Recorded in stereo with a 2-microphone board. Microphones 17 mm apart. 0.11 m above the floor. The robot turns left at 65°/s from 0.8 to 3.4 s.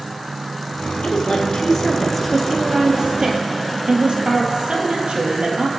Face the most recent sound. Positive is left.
turn(degrees=-75)